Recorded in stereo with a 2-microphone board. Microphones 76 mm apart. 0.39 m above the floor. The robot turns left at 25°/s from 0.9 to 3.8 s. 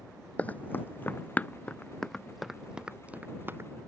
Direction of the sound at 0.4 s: 20° left (ahead or behind).